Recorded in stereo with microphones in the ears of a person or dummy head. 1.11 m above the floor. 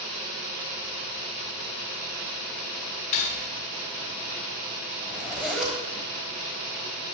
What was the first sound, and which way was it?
Cutlery clinking, 40° left (ahead or behind).